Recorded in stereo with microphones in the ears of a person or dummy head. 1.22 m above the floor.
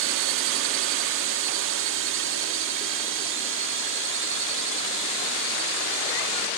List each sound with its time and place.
0.0 s a drone: 60° right (ahead or behind); by 6.6 s 65° right (ahead or behind)